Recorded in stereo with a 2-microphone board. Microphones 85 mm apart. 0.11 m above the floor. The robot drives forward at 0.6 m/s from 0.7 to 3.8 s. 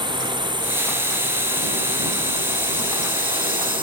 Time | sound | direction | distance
0.0 | a drone | 65° right (ahead or behind) | ?